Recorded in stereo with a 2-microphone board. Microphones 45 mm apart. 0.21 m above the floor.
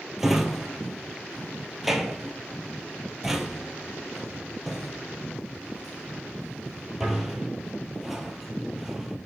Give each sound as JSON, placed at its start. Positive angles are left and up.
{"t": 0.2, "sound": "a drawer", "side_deg": -10, "distance_m": 1.1}